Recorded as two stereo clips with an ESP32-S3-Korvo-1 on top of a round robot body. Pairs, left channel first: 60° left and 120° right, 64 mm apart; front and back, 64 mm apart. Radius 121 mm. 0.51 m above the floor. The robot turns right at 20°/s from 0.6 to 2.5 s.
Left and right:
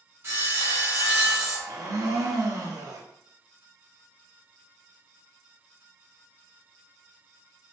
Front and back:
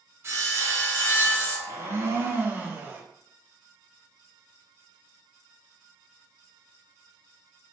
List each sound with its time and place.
0.2 s sawing: 150° right, 1.2 m; by 1.6 s 130° right, 1.2 m
1.7 s a blender: 135° right, 0.7 m; by 3.0 s 120° right, 0.7 m